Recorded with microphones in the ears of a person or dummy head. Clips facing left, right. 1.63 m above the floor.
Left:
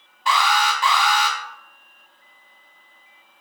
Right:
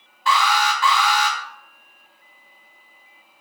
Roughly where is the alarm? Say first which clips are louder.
Right 1 dB; left.